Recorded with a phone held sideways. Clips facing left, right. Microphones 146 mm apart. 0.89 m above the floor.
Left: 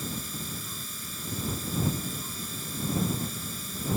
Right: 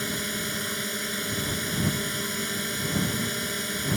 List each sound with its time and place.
0.0 s a drone: 75° right (ahead or behind)